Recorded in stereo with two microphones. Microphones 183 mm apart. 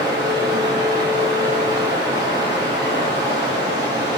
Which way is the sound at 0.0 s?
20° right (ahead or behind).